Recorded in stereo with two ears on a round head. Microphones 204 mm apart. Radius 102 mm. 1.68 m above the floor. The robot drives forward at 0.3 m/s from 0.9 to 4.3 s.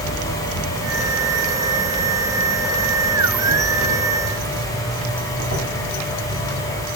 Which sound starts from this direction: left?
An insect, at 0.0 s.